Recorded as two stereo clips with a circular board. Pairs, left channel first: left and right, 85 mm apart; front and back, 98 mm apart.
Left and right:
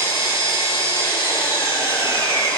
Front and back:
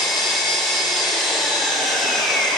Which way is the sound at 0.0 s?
90° left.